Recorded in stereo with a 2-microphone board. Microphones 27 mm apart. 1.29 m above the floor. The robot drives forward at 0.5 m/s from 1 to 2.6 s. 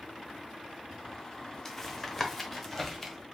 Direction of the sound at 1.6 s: 10° left (ahead or behind).